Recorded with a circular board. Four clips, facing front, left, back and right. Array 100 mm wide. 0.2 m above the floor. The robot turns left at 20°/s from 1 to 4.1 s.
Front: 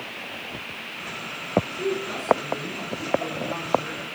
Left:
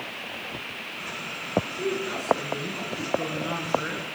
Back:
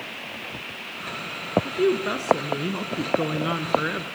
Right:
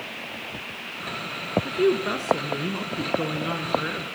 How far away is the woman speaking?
About 1.9 m.